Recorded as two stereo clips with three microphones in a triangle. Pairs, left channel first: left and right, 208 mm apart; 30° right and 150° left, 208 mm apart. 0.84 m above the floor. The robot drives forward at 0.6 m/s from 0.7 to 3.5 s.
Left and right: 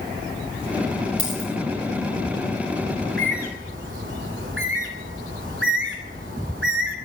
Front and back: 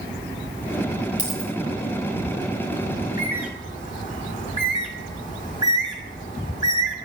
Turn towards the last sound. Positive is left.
turn(degrees=-85)